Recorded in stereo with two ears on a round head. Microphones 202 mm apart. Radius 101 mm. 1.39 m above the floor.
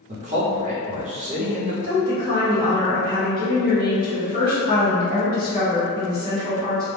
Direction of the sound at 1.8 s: 20° right (ahead or behind).